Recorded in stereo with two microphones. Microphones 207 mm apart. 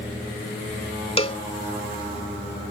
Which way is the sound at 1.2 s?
30° left (ahead or behind).